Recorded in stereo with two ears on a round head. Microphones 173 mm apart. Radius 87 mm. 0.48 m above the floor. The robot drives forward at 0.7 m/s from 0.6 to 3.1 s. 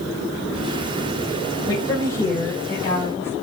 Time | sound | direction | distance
1.7 | a woman speaking | 15° left (ahead or behind) | 1.6 m